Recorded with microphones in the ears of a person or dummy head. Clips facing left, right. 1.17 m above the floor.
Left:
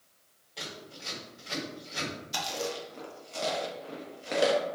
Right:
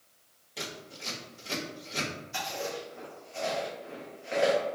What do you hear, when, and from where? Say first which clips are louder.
0.6 s scissors: right 2 dB; 20° right (ahead or behind), 1.3 m
2.3 s chewing: left 1 dB; 45° left (ahead or behind), 0.6 m